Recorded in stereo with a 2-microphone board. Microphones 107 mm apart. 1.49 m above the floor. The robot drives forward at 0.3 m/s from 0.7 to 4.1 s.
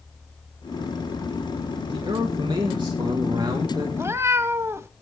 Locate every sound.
1.9 s a man speaking: 55° right (ahead or behind), 1.8 m; by 3.9 s 40° right (ahead or behind), 2 m
4.0 s a cat meowing: 25° right (ahead or behind), 0.9 m